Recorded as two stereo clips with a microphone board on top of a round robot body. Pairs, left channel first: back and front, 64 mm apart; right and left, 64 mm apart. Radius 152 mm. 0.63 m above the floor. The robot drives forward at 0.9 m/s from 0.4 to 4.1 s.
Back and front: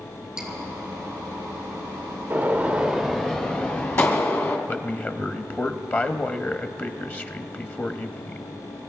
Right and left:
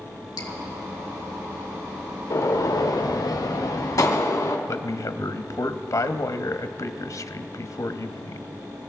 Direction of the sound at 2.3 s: 60° right.